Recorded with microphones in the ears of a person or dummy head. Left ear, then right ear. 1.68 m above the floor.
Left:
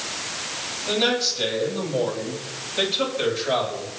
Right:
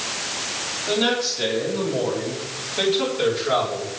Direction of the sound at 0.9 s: 30° left (ahead or behind).